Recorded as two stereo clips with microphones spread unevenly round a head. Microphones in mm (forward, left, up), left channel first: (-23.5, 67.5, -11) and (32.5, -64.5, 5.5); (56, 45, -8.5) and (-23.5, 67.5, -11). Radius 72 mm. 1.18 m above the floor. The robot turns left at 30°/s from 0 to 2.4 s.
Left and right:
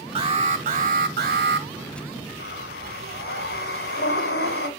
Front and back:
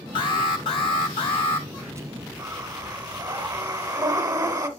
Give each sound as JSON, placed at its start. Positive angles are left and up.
{"t": 0.1, "sound": "an alarm", "azimuth_deg": -15, "distance_m": 2.0}
{"t": 2.4, "sound": "breathing", "azimuth_deg": 125, "distance_m": 2.0}